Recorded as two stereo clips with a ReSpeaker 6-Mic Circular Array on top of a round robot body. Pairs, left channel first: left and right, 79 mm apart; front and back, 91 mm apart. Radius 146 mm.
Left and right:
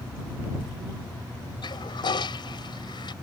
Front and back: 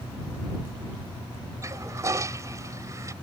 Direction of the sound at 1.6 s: 120° left.